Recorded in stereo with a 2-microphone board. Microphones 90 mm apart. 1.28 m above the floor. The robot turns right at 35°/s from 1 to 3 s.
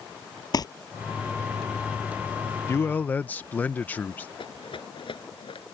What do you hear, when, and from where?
0.5 s crumpling: 45° left (ahead or behind)
2.7 s a man speaking: 30° left (ahead or behind); by 4.3 s 20° left (ahead or behind)
4.4 s a rattle: 75° left (ahead or behind)